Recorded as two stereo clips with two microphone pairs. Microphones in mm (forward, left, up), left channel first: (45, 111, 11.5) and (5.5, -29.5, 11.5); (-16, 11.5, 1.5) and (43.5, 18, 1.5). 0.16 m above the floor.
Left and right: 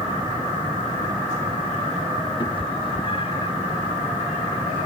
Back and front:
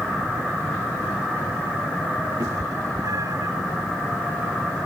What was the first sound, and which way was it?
A cat meowing, 20° left.